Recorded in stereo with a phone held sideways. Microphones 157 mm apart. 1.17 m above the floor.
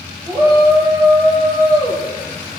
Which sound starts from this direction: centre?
A shout, at 0.3 s.